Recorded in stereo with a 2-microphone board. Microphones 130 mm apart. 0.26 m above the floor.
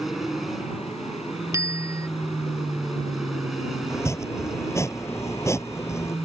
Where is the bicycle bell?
20° right (ahead or behind).